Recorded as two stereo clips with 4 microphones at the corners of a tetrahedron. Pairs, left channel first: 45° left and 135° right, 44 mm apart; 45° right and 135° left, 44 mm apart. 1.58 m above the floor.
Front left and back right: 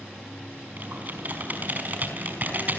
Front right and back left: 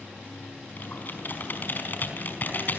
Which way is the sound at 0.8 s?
90° right.